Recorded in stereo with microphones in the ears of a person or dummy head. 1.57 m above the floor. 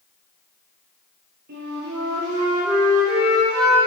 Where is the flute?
60° right (ahead or behind), 1.3 m.